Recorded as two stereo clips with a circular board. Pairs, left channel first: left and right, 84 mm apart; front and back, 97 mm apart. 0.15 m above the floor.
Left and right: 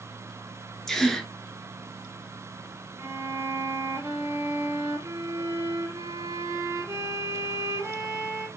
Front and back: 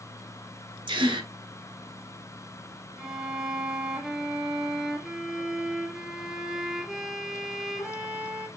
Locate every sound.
0.9 s a gasp: 175° left, 0.9 m
3.0 s a violin: 105° right, 1.0 m